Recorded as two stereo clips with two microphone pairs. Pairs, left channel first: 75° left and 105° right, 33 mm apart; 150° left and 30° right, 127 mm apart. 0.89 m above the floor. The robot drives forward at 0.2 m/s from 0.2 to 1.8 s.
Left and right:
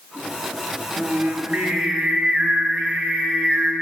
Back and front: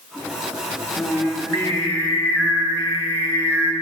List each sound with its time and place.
1.0 s singing: 125° right, 0.8 m; by 3.7 s 135° right, 0.9 m